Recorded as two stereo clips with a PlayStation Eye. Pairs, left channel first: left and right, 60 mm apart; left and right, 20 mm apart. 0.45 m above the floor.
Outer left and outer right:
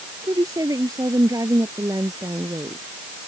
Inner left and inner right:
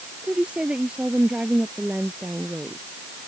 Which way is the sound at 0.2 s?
75° right (ahead or behind).